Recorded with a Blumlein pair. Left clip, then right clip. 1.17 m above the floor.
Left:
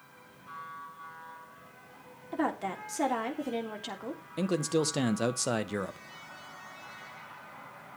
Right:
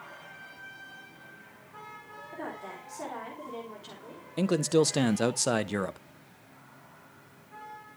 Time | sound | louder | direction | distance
2.3 | a woman speaking | left 8 dB | 60° left | 3.5 m
4.4 | a man speaking | right 4 dB | 10° right | 0.8 m